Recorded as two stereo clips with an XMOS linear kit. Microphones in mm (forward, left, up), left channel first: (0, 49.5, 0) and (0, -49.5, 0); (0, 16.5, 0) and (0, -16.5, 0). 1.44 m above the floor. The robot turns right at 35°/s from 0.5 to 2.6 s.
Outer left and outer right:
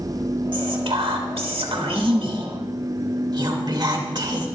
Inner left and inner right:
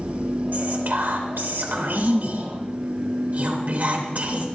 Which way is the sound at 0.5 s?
120° right.